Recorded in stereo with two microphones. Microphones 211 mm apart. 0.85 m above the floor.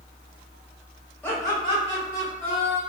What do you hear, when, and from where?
1.2 s laughter: 10° left (ahead or behind), 1.5 m; by 2.8 s 45° left (ahead or behind), 2.5 m